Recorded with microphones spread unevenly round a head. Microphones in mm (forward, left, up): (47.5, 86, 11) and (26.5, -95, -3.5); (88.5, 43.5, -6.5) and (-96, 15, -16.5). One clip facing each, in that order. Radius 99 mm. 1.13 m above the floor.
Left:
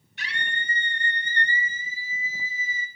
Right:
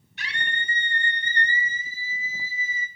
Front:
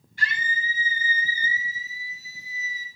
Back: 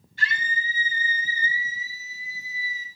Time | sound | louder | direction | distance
0.2 | a scream | right 1 dB, even | 100° right | 3 m